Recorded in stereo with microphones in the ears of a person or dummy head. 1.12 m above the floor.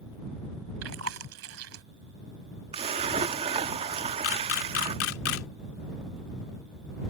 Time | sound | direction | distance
0.8 | chewing | 90° right | ?
2.7 | a splash | 30° right (ahead or behind) | ?
4.2 | a camera shutter | 85° left | ?